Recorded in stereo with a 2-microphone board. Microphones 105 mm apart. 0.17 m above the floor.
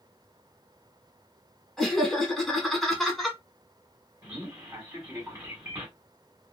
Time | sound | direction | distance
1.8 | laughter | 5° left (ahead or behind) | 1.2 m
4.2 | a man speaking | 20° right (ahead or behind) | 1.1 m